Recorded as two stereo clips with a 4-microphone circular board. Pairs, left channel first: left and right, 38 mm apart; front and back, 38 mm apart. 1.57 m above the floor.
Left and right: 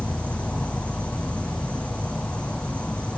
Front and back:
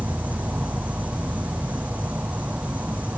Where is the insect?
140° left, 1.0 m.